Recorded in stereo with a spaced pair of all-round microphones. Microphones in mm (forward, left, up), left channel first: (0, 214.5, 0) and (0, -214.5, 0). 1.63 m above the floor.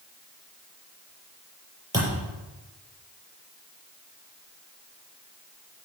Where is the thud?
10° right (ahead or behind), 7.5 m.